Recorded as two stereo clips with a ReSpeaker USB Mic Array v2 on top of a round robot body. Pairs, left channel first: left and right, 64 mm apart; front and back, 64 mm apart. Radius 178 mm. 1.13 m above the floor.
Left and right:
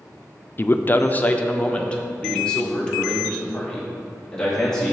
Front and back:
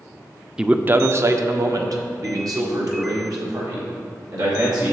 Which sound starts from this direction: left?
A man speaking, at 0.6 s.